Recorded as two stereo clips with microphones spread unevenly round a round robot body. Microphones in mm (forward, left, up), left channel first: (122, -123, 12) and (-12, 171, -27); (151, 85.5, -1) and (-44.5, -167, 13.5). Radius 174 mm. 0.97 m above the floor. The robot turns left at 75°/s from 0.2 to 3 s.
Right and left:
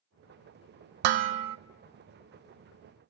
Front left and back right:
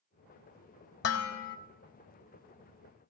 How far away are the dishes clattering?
About 0.5 m.